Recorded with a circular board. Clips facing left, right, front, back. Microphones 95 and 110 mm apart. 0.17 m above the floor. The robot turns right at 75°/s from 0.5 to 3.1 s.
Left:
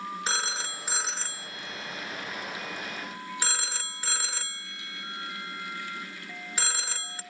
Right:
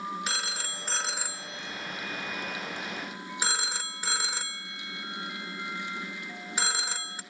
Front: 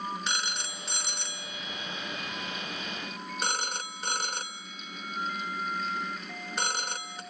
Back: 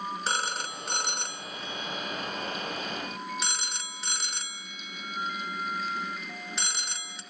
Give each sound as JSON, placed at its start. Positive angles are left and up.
{"t": 0.3, "sound": "a phone ringing", "azimuth_deg": 140, "distance_m": 1.4}